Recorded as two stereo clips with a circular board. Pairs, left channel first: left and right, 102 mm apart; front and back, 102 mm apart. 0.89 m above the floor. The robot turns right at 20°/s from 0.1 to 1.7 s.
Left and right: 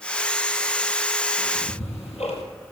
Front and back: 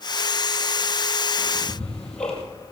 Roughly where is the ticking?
Left.